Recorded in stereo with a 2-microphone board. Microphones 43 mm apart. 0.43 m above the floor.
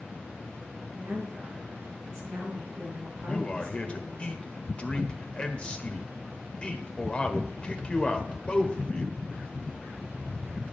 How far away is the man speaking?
About 1.1 m.